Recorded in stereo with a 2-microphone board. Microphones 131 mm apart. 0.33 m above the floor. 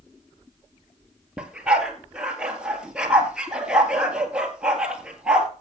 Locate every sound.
1.4 s a dog barking: 5° right (ahead or behind), 1.8 m